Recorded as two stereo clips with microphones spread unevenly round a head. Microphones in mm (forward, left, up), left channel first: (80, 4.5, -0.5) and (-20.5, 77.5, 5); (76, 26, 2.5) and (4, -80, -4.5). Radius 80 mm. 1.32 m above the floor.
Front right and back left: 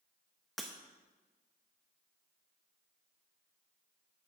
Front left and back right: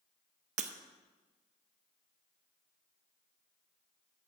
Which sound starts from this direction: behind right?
Breaking glass, at 0.6 s.